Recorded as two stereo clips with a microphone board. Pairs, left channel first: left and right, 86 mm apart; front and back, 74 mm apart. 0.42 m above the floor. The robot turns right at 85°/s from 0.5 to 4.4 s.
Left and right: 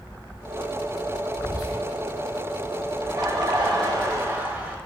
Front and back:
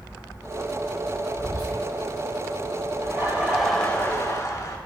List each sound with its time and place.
1.4 s whispering: 35° left, 4 m; by 1.8 s 70° left, 4 m
3.0 s laughter: 145° right, 2.0 m; by 4.8 s 25° right, 2.0 m